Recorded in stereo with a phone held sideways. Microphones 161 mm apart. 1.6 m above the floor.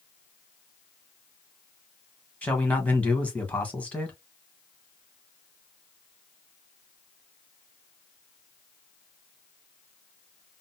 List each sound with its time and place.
2.4 s a man speaking: 10° left (ahead or behind), 1.4 m